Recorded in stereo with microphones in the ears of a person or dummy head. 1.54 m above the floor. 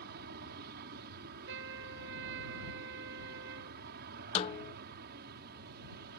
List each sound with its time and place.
0.0 s an aircraft: 55° right (ahead or behind)
1.5 s a trumpet: 70° right (ahead or behind)
4.3 s a snare drum: 30° left (ahead or behind)